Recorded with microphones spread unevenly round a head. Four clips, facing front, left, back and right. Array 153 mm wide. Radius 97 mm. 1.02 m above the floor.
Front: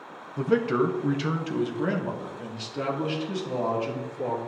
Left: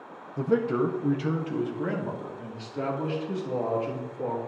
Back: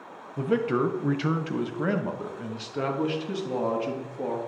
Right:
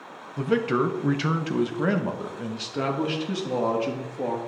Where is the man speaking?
165° right, 0.7 m; by 4.4 s 110° right, 2.5 m.